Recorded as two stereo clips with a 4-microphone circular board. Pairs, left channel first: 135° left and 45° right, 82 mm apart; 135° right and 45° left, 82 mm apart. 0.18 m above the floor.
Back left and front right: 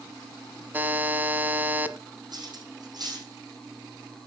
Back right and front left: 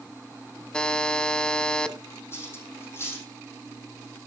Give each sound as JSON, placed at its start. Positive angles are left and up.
{"t": 0.7, "sound": "a buzzer", "azimuth_deg": -70, "distance_m": 0.9}
{"t": 2.3, "sound": "cutlery clinking", "azimuth_deg": -75, "distance_m": 4.5}